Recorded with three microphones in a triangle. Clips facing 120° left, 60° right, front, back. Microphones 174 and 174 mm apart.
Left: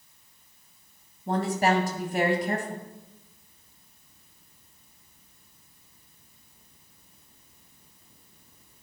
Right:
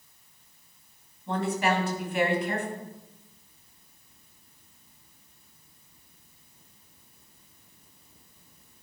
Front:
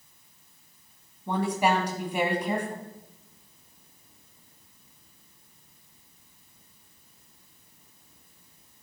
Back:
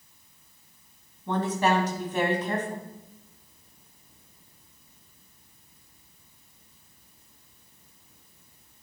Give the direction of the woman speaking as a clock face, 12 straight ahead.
9 o'clock.